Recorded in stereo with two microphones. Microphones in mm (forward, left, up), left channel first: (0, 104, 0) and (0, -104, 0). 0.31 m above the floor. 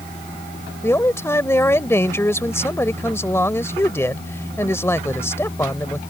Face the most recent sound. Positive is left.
turn(degrees=10)  # may be behind; listen again after turning